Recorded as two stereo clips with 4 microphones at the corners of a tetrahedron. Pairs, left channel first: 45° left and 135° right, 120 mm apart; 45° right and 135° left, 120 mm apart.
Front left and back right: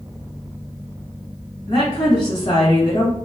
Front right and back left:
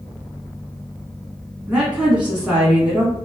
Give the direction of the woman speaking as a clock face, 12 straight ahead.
10 o'clock.